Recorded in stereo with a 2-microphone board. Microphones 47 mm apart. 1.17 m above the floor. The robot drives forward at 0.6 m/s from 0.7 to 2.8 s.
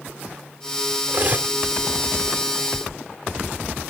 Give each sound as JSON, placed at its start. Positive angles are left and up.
{"t": 1.1, "sound": "cutlery clinking", "side_deg": -35}